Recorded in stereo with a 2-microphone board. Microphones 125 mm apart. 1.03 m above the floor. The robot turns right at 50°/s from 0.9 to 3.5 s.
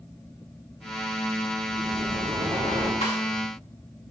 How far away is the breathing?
About 4.5 m.